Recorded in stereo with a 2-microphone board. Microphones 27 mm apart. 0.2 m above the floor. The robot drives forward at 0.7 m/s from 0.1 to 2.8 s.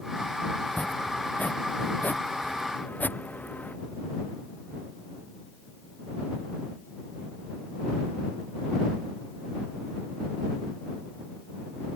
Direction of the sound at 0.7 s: 80° left.